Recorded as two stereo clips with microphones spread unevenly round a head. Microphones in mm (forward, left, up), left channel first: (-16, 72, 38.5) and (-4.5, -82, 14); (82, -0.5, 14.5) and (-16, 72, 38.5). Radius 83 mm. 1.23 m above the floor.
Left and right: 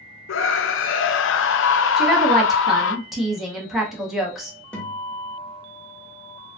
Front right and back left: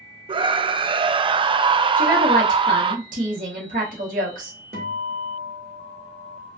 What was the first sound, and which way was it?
A scream, 90° left.